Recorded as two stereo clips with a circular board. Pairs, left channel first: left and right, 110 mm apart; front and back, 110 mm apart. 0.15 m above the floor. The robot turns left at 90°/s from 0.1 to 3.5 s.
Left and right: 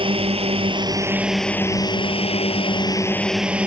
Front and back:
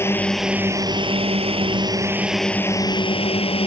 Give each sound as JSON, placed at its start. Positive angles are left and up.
{"t": 0.0, "sound": "a drone", "azimuth_deg": -65}